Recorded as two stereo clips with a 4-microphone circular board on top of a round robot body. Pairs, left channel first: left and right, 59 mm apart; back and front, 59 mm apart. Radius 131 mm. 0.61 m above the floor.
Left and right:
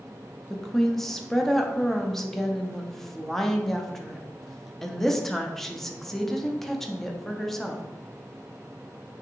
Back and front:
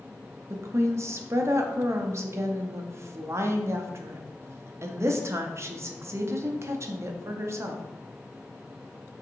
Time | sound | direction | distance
0.5 | a woman speaking | 5° left | 0.7 m